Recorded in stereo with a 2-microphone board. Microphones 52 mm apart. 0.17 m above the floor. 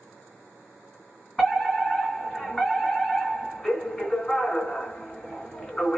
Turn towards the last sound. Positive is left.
turn(degrees=15)  # may be behind; listen again after turning